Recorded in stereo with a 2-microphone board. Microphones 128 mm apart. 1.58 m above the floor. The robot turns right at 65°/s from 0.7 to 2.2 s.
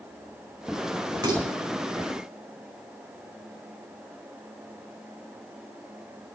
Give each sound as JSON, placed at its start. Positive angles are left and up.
{"t": 1.2, "sound": "dishes clattering", "side_deg": -30, "distance_m": 5.5}